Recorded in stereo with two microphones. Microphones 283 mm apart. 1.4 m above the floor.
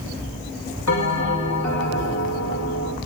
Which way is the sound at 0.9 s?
75° left (ahead or behind).